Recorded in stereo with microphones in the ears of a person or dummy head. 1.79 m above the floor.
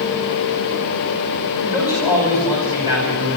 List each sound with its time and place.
1.6 s a man speaking: 15° right (ahead or behind), 9.5 m